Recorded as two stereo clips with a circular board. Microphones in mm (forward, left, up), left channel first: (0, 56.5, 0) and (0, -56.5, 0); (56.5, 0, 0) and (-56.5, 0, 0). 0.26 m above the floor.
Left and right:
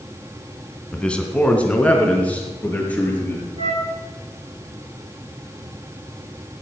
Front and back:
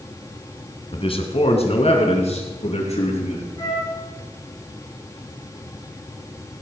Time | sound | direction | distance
0.9 | a man speaking | 10° left | 1.9 m
3.6 | a flute | 55° right | 7 m